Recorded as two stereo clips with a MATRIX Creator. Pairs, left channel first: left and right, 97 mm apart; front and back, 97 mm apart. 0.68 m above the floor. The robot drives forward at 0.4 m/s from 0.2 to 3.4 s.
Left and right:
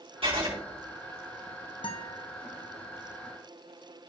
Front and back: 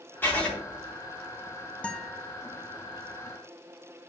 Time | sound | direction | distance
0.2 | writing | 70° right | 4.5 m
1.8 | a guitar | 75° left | 0.9 m